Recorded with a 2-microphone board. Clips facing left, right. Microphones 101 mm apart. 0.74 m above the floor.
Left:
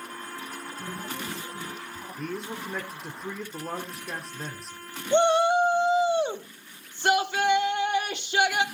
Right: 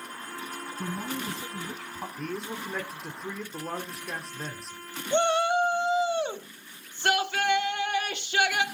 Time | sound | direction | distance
0.8 | a man speaking | 80° right | 5 m
2.2 | a man speaking | 5° left (ahead or behind) | 1.6 m
5.1 | a shout | 15° left (ahead or behind) | 1.3 m